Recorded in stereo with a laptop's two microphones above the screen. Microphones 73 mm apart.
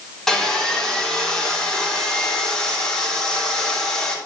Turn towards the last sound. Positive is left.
turn(degrees=5)  # may be behind; listen again after turning